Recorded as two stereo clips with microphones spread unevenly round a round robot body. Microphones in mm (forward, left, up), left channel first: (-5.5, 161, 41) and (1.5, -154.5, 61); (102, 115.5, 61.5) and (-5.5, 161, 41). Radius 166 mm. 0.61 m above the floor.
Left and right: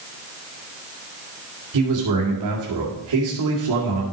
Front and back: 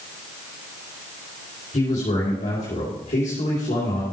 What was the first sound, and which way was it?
A man speaking, 70° right.